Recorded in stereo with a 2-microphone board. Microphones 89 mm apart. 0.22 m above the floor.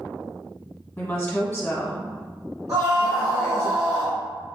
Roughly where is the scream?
Right.